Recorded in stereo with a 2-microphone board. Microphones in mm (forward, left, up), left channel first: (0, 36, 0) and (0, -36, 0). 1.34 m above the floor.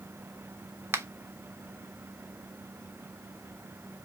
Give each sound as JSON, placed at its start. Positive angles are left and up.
{"t": 0.9, "sound": "a finger snap", "side_deg": -35, "distance_m": 0.6}